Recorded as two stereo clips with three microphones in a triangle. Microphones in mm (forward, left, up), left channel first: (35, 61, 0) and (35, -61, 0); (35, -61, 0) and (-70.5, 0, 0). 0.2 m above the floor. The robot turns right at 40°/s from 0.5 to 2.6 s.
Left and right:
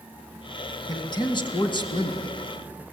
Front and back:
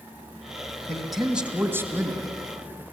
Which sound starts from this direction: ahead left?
A man speaking, at 0.9 s.